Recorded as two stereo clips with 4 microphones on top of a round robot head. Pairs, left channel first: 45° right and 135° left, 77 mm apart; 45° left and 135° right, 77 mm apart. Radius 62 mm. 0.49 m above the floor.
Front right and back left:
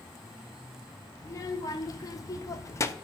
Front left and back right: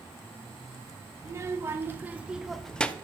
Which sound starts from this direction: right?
A child speaking, at 1.2 s.